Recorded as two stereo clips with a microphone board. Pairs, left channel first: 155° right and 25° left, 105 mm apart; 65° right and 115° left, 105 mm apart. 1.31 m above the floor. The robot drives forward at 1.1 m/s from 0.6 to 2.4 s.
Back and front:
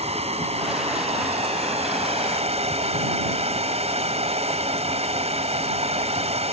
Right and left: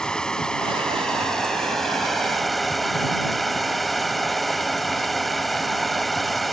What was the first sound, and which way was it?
Running water, 15° left.